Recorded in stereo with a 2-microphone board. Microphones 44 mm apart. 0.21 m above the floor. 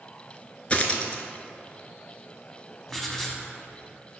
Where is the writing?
10° left (ahead or behind), 0.7 m.